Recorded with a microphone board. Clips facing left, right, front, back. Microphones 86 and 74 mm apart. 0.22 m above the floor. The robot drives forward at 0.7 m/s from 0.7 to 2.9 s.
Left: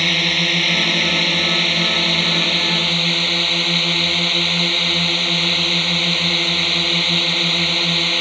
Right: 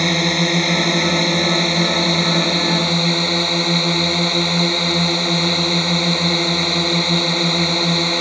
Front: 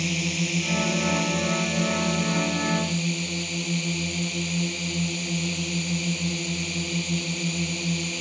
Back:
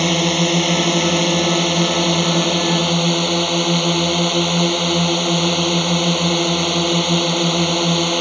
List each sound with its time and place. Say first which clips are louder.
0.0 s a drone: right 4 dB, back 11 dB; 160° right